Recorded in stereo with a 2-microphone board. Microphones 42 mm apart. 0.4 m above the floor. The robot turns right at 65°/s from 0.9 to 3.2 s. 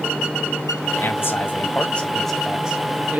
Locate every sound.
1.0 s a man speaking: 85° left, 1.9 m; by 3.2 s 130° right, 1.9 m